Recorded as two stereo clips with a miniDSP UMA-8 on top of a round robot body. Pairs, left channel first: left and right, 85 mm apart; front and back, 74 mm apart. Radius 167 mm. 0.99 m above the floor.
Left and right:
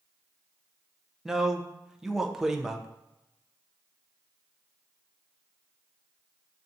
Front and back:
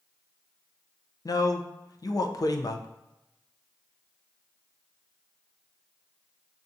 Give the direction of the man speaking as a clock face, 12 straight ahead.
12 o'clock.